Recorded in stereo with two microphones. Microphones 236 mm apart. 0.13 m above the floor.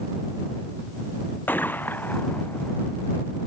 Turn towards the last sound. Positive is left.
turn(degrees=10)  # may be behind; listen again after turning